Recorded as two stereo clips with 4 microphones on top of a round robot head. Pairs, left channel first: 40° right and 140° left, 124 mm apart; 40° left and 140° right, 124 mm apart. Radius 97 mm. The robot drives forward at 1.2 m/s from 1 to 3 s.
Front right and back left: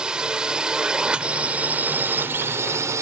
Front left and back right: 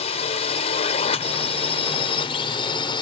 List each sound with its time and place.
0.0 s a drone: 55° left; by 3.0 s 80° left